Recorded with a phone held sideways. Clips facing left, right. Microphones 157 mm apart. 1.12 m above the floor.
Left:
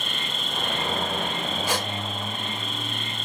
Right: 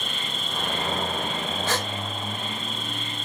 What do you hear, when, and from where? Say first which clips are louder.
0.0 s an insect: even; 55° left (ahead or behind), 1.8 m
1.7 s a gasp: even; 10° left (ahead or behind), 1.0 m